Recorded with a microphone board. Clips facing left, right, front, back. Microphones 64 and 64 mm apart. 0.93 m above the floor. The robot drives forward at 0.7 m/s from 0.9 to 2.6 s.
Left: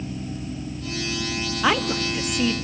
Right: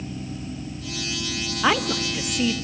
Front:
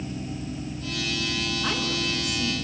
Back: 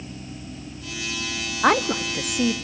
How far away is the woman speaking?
About 0.9 m.